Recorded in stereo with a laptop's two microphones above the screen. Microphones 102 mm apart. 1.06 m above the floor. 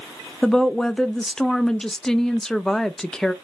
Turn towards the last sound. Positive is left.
turn(degrees=5)  # may be behind; listen again after turning